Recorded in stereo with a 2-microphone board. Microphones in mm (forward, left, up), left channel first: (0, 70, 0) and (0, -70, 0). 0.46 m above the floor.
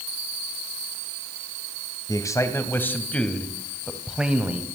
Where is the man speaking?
25° left (ahead or behind), 2.5 m; by 4.6 s 10° right (ahead or behind), 2.5 m.